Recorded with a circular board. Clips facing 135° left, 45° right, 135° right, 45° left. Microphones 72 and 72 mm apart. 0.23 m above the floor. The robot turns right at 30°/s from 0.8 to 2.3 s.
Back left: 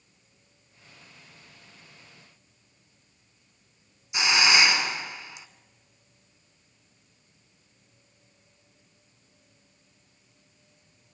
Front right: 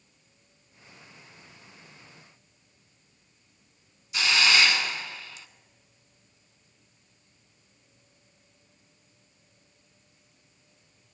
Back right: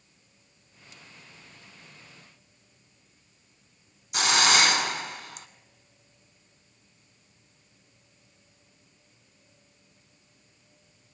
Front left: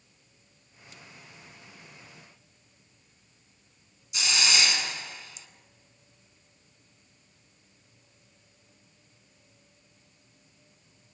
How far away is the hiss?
About 1.1 m.